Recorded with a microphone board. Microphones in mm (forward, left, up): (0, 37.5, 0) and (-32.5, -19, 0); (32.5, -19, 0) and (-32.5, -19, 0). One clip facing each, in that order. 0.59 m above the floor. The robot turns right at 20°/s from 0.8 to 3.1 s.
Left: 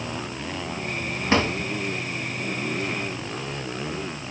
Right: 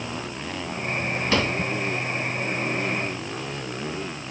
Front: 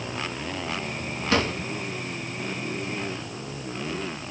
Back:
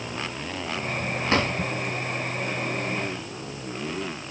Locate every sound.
1.3 s a drawer: 120° left, 3 m; by 1.5 s 125° left, 3 m